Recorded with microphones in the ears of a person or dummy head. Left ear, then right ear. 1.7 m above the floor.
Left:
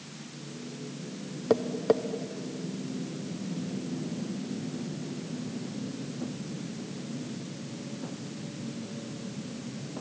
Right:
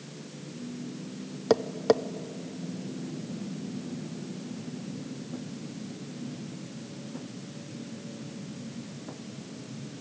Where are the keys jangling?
No keys jangling in this recording.